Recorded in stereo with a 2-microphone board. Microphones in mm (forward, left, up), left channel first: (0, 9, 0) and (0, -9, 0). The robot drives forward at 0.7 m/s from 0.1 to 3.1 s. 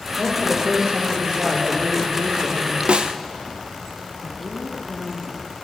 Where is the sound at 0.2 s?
35° right (ahead or behind), 3.5 m; by 2.8 s 65° right (ahead or behind), 2 m.